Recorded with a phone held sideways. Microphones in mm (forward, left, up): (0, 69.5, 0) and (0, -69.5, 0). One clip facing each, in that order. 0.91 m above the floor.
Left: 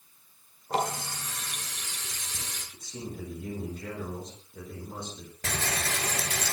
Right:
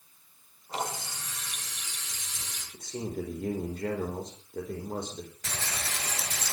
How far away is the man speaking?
About 4 m.